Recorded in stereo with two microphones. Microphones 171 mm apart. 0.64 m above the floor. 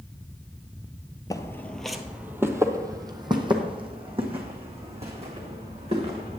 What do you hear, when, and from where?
1.3 s footsteps: 20° left (ahead or behind), 0.7 m; by 6.4 s 40° right (ahead or behind), 3 m